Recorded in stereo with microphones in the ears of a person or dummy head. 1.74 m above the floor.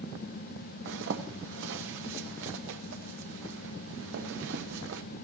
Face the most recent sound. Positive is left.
turn(degrees=-65)  # may be behind; listen again after turning